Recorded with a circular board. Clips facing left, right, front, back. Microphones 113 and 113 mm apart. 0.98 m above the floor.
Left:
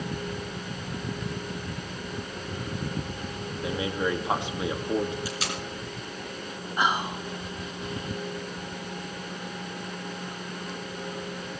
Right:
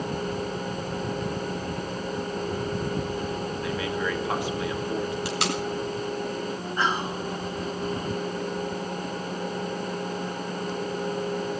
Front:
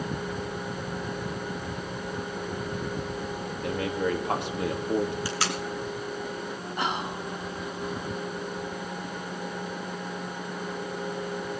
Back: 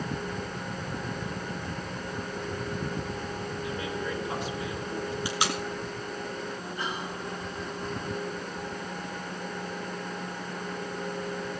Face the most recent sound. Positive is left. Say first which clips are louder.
# left 1 dB, front 7 dB
turn(degrees=15)